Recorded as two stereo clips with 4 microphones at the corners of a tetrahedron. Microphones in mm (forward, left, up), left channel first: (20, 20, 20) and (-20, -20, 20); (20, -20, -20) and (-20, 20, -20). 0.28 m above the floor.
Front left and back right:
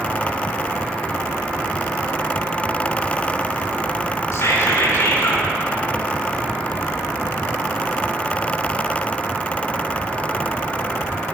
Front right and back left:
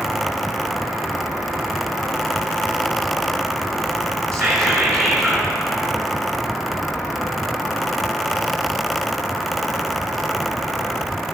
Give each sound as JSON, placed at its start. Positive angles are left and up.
{"t": 4.3, "sound": "whispering", "azimuth_deg": 40, "distance_m": 3.5}